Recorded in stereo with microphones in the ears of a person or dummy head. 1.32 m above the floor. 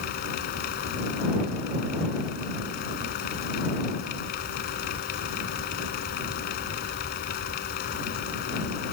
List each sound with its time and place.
0.0 s a fan: 50° left (ahead or behind)